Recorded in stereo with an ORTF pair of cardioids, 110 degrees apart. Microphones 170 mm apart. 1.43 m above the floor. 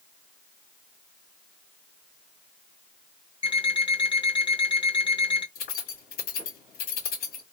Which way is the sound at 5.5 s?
70° left.